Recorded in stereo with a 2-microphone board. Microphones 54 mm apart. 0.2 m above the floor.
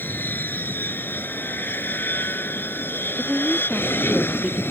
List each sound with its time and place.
0.0 s an aircraft: 40° left (ahead or behind); by 4.7 s 45° left (ahead or behind)
3.2 s a woman speaking: 15° right (ahead or behind)